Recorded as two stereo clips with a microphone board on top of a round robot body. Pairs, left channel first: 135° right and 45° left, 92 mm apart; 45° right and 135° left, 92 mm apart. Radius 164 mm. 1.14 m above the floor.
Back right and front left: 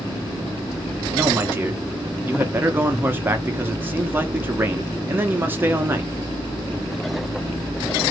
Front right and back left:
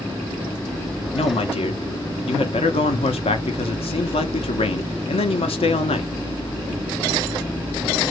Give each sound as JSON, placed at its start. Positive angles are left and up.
{"t": 1.1, "sound": "a man speaking", "azimuth_deg": -25, "distance_m": 0.7}